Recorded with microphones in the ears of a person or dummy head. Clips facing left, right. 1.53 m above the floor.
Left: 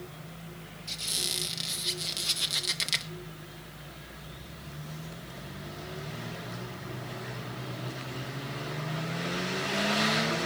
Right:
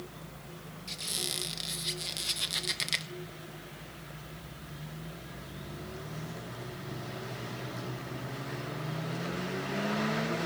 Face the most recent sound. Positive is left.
turn(degrees=0)  # may be behind; listen again after turning